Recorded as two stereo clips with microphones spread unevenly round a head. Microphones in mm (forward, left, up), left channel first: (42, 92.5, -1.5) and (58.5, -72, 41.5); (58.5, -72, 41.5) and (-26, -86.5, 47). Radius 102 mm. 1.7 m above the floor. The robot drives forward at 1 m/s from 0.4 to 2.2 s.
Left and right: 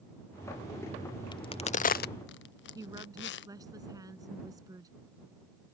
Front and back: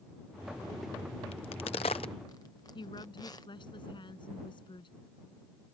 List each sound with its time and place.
1.3 s a crack: 30° left; by 3.5 s 80° left
2.8 s a woman speaking: 15° right